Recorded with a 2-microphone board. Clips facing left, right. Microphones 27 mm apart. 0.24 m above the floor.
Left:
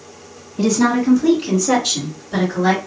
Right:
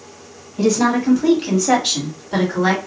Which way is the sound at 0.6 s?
20° right (ahead or behind).